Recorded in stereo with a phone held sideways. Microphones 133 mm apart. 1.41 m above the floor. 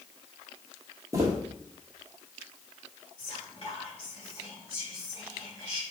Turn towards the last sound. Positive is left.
turn(degrees=40)  # may be behind; listen again after turning